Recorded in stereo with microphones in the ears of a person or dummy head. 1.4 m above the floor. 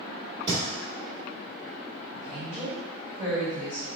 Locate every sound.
0.5 s a thud: 25° right (ahead or behind), 2.0 m
2.1 s a woman speaking: 10° right (ahead or behind), 2.0 m